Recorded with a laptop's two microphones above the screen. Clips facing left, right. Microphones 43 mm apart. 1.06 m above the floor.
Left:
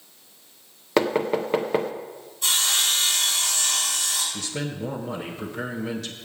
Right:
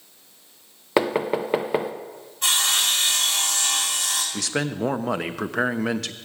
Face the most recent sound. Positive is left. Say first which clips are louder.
# right 5 dB
turn(degrees=-85)